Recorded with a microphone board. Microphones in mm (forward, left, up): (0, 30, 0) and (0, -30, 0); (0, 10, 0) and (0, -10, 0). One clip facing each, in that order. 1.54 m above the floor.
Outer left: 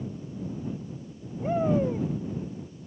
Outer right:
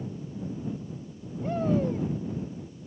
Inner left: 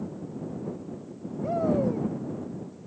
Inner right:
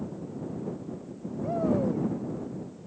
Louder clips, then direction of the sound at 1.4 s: Outer left 2 dB, inner left 2 dB; 20° left (ahead or behind).